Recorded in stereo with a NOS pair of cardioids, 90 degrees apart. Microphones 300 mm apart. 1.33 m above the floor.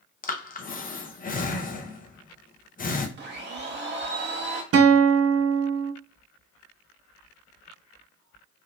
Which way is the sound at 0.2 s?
30° left.